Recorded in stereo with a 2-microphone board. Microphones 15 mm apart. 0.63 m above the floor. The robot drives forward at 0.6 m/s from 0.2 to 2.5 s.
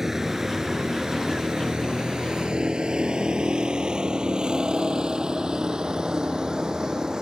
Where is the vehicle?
25° right (ahead or behind); by 7.2 s 55° right (ahead or behind).